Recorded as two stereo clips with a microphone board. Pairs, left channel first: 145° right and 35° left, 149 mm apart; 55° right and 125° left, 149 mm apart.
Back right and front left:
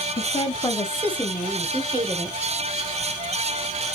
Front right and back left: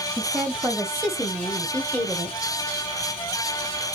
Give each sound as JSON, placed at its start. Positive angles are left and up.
{"t": 0.2, "sound": "a woman speaking", "azimuth_deg": -160, "distance_m": 1.2}